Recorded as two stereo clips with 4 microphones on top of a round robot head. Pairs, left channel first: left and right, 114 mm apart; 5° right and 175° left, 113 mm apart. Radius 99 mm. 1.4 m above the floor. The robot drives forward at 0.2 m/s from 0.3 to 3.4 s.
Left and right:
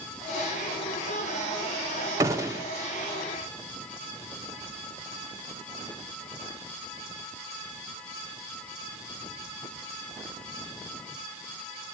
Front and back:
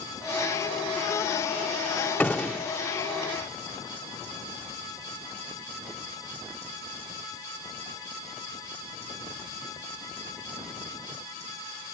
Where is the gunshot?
80° right, 0.6 m; by 2.7 s 110° right, 0.6 m.